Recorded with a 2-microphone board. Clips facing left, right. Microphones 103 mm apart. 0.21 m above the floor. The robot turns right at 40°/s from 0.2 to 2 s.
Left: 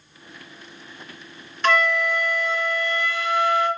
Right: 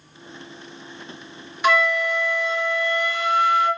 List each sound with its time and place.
1.6 s a flute: 10° right (ahead or behind), 0.6 m; by 3.7 s 20° right (ahead or behind), 0.6 m